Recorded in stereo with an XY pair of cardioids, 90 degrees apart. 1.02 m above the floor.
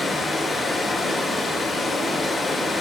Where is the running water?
50° left, 2.5 m.